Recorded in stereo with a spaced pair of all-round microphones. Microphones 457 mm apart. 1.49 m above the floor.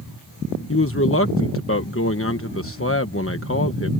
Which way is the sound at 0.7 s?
30° left (ahead or behind).